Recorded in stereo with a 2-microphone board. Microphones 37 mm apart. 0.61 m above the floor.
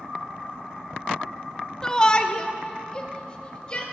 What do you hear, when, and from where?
1.8 s a shout: 15° left (ahead or behind), 0.5 m; by 3.8 s 25° left (ahead or behind), 2.5 m